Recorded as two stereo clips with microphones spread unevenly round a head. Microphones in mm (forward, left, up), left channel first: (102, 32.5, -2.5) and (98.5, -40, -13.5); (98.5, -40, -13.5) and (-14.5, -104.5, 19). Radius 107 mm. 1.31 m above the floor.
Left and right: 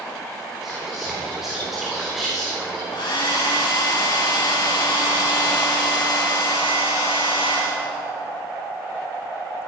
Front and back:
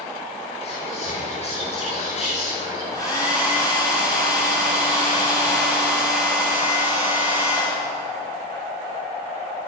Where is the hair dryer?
105° left, 2.5 m.